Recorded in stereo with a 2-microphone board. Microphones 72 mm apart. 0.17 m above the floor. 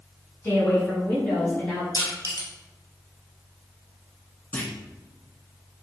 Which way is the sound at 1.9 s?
60° left (ahead or behind).